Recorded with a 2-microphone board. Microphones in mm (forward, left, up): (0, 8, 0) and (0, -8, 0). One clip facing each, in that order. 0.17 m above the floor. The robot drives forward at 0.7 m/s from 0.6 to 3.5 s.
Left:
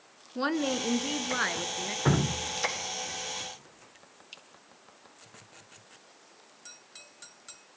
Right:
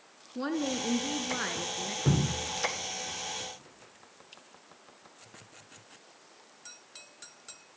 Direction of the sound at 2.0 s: 50° left (ahead or behind).